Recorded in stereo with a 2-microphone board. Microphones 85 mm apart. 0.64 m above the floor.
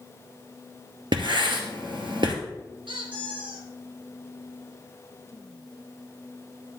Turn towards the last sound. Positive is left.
turn(degrees=-85)